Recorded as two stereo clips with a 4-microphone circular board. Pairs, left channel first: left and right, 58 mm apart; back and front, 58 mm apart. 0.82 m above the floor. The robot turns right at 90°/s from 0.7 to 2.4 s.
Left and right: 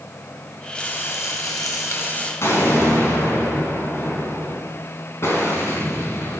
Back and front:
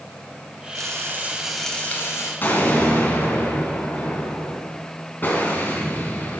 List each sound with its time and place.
0.8 s frying: 15° left, 3 m; by 2.3 s 160° left, 3 m
2.4 s an explosion: 125° left, 4.5 m